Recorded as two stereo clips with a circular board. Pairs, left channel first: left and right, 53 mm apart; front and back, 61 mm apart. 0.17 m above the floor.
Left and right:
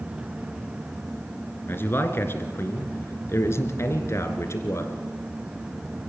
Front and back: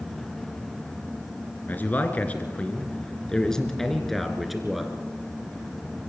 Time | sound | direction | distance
1.7 | a man speaking | 55° left | 2.5 m